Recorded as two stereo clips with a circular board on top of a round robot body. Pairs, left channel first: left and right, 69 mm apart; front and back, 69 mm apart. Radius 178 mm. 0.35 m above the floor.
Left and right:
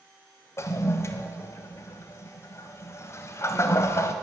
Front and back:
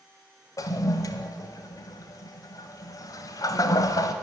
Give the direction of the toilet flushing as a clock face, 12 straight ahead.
11 o'clock.